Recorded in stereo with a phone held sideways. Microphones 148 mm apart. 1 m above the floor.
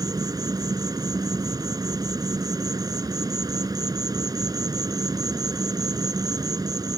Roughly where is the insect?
Right.